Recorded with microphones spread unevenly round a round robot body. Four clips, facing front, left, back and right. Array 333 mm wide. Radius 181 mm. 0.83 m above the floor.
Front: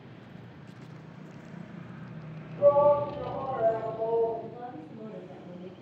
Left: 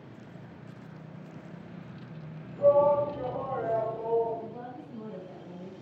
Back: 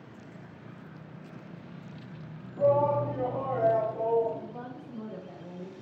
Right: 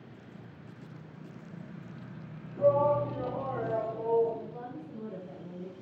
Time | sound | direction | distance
2.6 | a shout | 125° right | 5.5 m
4.4 | a woman speaking | 140° right | 5.5 m